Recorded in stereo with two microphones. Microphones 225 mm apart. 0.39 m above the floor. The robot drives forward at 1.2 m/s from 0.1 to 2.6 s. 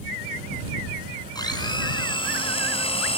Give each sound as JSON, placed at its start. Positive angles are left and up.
{"t": 1.4, "sound": "a blender", "side_deg": 20, "distance_m": 4.5}